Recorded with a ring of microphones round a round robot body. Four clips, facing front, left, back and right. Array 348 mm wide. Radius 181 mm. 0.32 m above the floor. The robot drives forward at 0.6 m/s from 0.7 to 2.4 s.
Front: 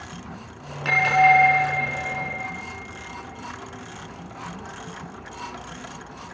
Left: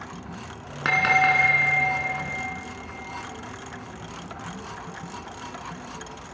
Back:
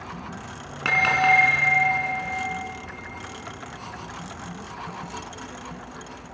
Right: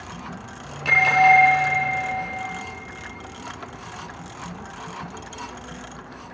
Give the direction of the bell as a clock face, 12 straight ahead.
8 o'clock.